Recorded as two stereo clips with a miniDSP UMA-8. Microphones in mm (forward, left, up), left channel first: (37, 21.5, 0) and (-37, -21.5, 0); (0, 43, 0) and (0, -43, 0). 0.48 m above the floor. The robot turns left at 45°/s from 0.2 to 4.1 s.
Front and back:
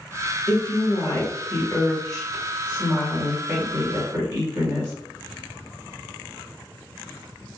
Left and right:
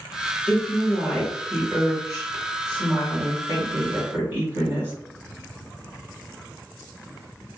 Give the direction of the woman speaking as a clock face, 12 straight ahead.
11 o'clock.